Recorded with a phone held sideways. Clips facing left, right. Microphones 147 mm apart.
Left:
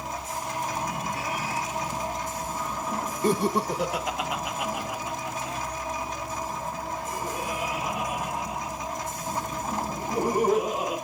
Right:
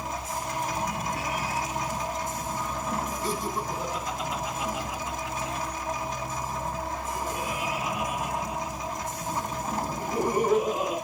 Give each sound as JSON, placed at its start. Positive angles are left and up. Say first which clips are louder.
{"t": 3.2, "sound": "laughter", "louder": "left 6 dB", "side_deg": 55, "distance_m": 0.9}